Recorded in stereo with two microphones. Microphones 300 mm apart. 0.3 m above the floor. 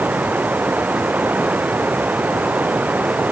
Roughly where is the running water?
Centre.